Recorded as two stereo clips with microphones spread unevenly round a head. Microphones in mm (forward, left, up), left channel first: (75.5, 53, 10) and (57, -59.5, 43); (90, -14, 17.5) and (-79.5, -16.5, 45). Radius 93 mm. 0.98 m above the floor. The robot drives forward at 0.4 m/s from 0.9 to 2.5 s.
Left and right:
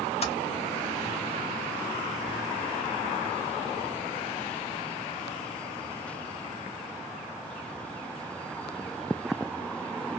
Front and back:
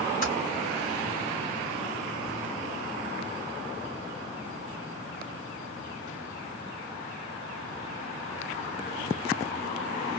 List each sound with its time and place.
0.2 s typing on a keyboard: 50° left, 1.7 m